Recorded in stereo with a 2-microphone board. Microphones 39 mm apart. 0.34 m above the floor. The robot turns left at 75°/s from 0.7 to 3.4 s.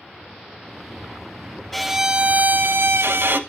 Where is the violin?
5° left, 0.5 m; by 3.4 s 120° right, 0.5 m.